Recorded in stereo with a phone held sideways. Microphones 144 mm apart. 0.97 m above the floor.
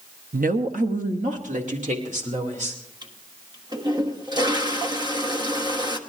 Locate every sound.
0.3 s a woman speaking: 75° right (ahead or behind), 0.7 m; by 2.8 s 60° right (ahead or behind), 3 m
3.0 s a toilet flushing: 30° right (ahead or behind), 1.2 m